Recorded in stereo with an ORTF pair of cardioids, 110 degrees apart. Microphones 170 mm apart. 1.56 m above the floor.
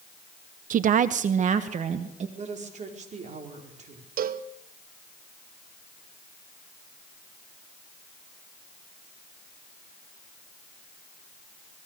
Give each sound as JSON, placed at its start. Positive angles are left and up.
{"t": 0.7, "sound": "a woman speaking", "azimuth_deg": -55, "distance_m": 0.7}
{"t": 2.4, "sound": "a woman speaking", "azimuth_deg": -45, "distance_m": 5.0}
{"t": 4.2, "sound": "a cowbell", "azimuth_deg": -55, "distance_m": 1.1}